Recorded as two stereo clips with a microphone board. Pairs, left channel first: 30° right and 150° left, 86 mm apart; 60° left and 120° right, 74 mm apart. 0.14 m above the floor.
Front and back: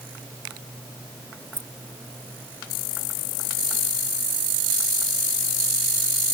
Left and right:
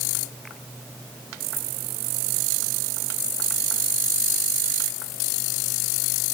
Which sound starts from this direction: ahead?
Keys jangling, at 1.5 s.